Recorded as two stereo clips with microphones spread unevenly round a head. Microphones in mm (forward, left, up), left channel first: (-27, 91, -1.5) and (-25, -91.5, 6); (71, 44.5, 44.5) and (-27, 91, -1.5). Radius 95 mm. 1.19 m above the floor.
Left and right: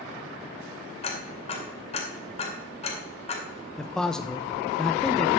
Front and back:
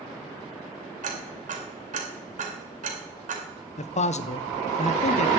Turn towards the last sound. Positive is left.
turn(degrees=5)